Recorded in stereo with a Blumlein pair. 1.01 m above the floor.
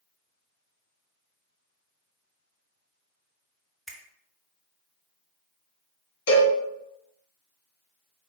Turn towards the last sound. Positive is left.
turn(degrees=55)